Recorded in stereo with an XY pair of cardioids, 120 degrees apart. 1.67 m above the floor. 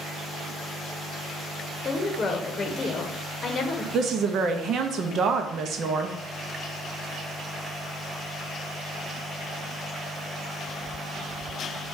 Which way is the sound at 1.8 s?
30° left.